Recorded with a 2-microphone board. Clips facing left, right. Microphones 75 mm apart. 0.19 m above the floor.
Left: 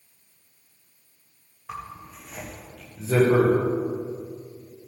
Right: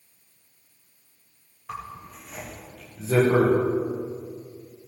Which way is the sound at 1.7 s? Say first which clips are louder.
Even; 5° left (ahead or behind).